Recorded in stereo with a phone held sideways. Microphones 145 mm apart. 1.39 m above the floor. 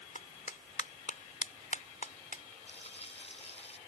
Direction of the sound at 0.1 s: 65° left (ahead or behind).